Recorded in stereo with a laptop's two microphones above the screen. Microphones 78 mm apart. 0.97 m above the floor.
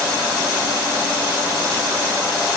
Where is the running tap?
No running tap in this recording.